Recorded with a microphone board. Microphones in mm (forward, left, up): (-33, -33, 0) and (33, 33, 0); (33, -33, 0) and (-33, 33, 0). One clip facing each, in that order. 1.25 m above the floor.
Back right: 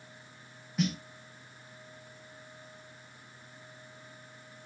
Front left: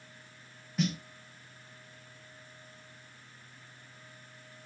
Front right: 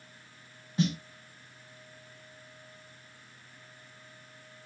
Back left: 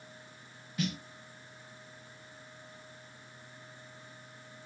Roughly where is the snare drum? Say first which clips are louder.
Back right 1 dB, front right 6 dB; ahead right.